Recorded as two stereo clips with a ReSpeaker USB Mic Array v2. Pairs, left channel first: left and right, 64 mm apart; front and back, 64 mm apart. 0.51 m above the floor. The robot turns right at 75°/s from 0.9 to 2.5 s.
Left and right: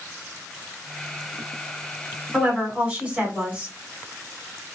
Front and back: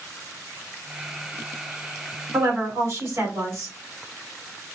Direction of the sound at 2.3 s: 175° right.